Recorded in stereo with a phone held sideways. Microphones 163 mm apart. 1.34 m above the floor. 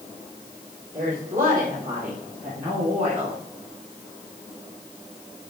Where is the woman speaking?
65° right (ahead or behind), 4.5 m; by 3.4 s 55° right (ahead or behind), 3.5 m.